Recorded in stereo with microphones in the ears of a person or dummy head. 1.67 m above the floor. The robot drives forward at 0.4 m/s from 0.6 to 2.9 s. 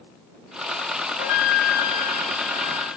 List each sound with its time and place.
1.2 s a flute: 50° left (ahead or behind), 0.6 m; by 2.9 s 35° left (ahead or behind), 0.9 m